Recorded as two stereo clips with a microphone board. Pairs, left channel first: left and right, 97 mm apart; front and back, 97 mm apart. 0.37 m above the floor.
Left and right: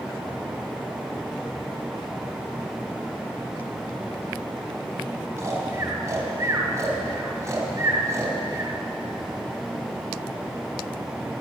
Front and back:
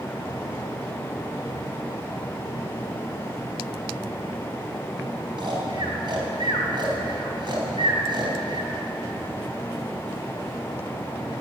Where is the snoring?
150° right, 3 m.